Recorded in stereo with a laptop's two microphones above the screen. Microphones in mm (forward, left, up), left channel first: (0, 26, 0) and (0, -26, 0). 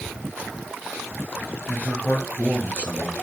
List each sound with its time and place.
1.7 s a man speaking: 25° left (ahead or behind), 1.0 m